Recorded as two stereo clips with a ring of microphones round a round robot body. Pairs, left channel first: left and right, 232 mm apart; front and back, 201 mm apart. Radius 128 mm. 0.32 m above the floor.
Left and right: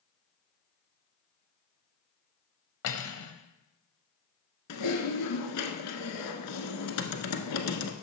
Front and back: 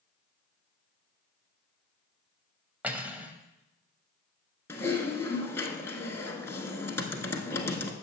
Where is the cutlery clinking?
95° left, 1.0 m.